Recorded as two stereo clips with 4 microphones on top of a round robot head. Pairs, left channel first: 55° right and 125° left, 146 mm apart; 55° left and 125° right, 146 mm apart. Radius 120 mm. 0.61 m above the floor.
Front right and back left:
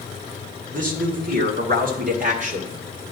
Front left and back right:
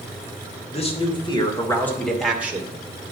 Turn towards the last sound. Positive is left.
turn(degrees=165)